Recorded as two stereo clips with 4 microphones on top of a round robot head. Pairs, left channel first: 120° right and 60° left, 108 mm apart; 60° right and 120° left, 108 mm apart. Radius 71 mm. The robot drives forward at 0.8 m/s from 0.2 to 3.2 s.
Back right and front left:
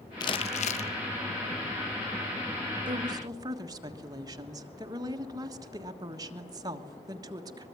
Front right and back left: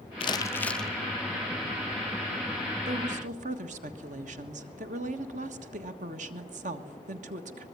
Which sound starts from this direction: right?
Crumpling, at 0.2 s.